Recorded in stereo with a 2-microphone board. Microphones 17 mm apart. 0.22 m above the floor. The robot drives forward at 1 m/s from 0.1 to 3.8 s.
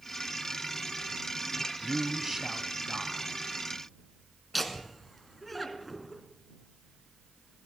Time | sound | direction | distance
1.8 | a man speaking | 35° right (ahead or behind) | 1.1 m
4.5 | laughter | 5° left (ahead or behind) | 3 m